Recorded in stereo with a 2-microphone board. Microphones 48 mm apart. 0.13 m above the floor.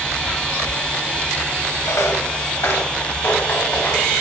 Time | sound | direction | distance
1.9 | footsteps | 75° left (ahead or behind) | 1.1 m